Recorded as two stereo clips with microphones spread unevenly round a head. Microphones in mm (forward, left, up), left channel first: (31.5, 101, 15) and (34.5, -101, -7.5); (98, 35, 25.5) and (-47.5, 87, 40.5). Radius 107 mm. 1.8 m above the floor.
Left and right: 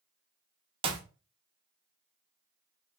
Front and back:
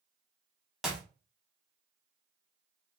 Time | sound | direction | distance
0.8 | a clap | 130° right | 0.7 m